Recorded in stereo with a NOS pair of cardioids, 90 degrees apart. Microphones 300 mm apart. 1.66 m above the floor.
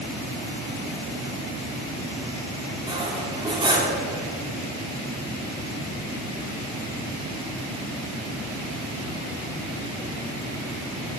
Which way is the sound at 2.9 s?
15° right.